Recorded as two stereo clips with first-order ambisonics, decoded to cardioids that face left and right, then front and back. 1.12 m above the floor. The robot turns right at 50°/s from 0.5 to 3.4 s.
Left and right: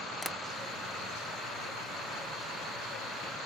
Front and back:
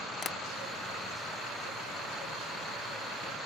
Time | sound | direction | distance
0.2 | tapping | 10° left | ?